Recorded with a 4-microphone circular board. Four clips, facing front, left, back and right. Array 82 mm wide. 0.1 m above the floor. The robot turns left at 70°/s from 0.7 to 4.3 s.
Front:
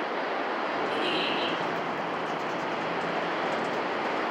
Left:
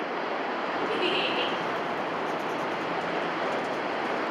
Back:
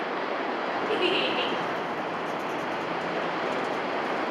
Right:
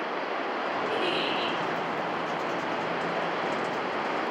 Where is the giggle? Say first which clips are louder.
Left 1 dB, back 2 dB; 175° right, 2.5 m; by 1.6 s 140° left, 2.5 m.